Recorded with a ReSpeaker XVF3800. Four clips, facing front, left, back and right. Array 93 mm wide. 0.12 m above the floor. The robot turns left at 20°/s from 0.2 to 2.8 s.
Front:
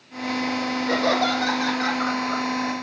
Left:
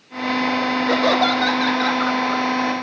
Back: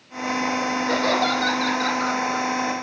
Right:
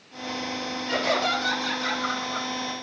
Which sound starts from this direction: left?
Laughter, at 0.9 s.